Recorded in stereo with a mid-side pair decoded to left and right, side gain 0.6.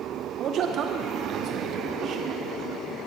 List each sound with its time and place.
0.4 s a man speaking: 55° right, 0.5 m